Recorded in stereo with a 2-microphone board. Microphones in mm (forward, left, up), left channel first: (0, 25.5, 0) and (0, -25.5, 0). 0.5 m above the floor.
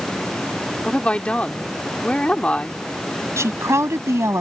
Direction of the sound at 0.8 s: 25° left (ahead or behind).